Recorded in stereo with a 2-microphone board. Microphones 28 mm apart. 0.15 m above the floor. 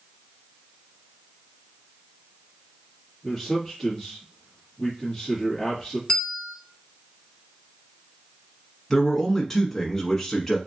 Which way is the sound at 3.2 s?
10° left (ahead or behind).